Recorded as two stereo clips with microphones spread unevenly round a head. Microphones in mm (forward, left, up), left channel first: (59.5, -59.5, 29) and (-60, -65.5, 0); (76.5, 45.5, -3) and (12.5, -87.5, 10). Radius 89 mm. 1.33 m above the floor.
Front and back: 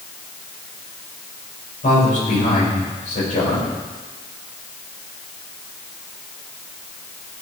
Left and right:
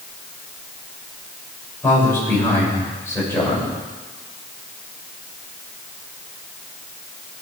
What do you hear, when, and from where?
1.8 s a man speaking: 10° right, 6.5 m